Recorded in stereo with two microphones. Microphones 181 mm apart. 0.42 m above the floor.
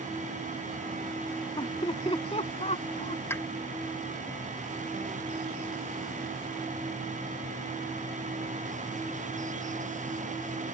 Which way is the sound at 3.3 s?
15° left (ahead or behind).